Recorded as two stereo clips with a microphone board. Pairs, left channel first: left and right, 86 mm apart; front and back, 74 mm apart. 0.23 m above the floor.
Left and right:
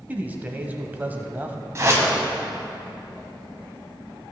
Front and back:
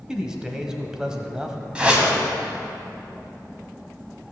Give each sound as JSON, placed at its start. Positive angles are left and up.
{"t": 0.1, "sound": "a man speaking", "azimuth_deg": -115, "distance_m": 1.0}
{"t": 1.8, "sound": "a whoosh", "azimuth_deg": -115, "distance_m": 1.8}